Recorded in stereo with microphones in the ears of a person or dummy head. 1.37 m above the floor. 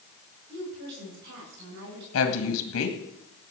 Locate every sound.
0.5 s a woman speaking: 55° right (ahead or behind), 9 m
2.1 s a woman speaking: 70° left (ahead or behind), 2 m